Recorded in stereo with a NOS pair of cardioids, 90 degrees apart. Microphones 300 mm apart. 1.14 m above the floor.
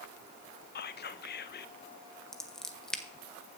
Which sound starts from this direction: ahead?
Scissors, at 2.3 s.